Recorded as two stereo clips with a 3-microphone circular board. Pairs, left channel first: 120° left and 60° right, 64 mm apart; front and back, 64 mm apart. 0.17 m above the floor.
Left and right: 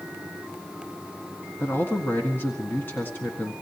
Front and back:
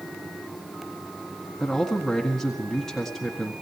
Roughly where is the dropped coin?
No dropped coin in this recording.